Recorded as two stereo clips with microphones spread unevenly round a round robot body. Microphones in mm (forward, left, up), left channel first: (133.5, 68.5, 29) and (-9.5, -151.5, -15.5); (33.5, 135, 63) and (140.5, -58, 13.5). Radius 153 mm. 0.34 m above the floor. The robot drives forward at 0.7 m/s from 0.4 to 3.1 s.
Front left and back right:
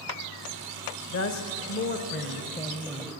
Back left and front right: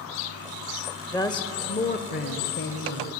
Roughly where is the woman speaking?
Ahead left.